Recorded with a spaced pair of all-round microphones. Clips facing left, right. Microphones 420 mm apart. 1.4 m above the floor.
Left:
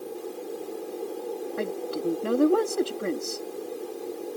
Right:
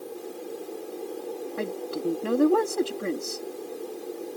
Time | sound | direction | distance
1.6 | a woman speaking | centre (ahead or behind) | ?